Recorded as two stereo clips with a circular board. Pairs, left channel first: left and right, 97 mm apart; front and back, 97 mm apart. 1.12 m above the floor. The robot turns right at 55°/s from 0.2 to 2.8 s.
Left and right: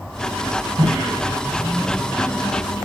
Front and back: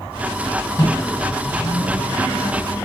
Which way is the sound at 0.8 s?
55° right.